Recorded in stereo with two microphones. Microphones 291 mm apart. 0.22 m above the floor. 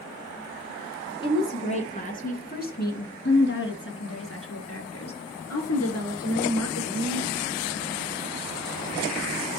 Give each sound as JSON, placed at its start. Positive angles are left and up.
{"t": 1.2, "sound": "a woman speaking", "side_deg": 20, "distance_m": 2.5}